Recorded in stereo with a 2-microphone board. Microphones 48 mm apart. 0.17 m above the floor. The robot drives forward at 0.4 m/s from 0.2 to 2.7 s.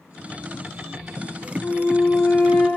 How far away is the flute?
About 1.8 m.